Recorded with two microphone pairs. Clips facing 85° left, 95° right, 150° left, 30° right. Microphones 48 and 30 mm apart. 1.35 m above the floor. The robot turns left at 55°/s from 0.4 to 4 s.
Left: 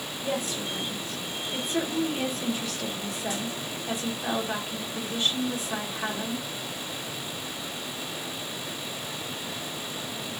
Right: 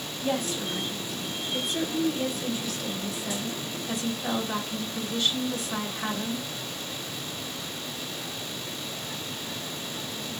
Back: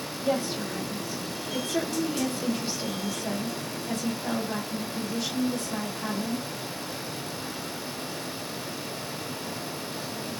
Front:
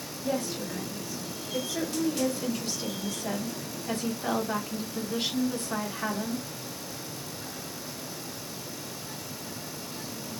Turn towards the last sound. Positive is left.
turn(degrees=20)